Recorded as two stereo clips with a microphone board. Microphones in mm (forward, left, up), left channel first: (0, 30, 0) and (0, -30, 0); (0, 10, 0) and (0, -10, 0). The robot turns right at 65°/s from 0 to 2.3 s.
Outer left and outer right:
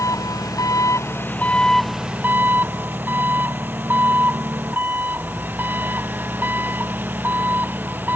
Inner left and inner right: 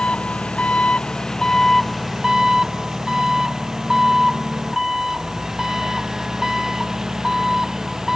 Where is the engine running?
60° left; by 8.2 s 150° right.